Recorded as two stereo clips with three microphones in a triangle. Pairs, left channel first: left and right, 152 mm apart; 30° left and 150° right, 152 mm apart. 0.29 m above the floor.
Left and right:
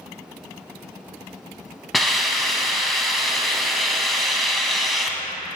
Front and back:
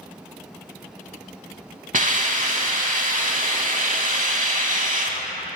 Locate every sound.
1.9 s a hiss: straight behind, 0.6 m